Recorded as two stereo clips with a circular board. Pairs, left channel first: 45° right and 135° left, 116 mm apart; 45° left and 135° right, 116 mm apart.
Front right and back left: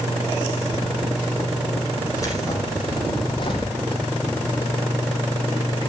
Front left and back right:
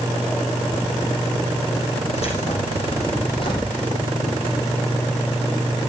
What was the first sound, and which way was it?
Keys jangling, 20° left.